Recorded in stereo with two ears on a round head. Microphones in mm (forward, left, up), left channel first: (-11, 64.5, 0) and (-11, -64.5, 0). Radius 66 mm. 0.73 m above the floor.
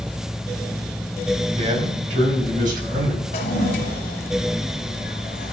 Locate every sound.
1.6 s a man speaking: 55° right (ahead or behind), 4 m; by 3.2 s 80° right, 5 m
3.3 s a toilet flushing: 80° left, 1.8 m